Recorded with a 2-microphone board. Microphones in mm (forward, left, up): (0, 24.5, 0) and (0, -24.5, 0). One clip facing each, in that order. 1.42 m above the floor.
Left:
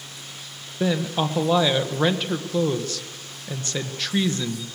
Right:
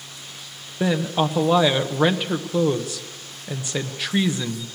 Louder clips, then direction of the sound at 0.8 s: Right 2 dB; 10° right (ahead or behind).